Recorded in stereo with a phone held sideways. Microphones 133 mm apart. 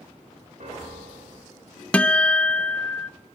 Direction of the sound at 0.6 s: 70° right (ahead or behind).